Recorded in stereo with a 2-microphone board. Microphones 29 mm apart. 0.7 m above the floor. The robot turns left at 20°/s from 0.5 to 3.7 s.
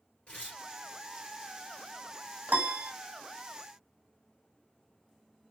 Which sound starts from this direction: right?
A piano, at 2.5 s.